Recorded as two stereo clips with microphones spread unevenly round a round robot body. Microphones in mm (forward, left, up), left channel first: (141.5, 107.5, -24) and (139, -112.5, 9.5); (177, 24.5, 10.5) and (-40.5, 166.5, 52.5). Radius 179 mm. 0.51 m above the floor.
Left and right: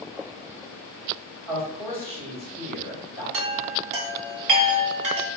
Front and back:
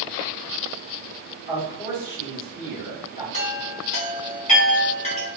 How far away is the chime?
About 0.8 m.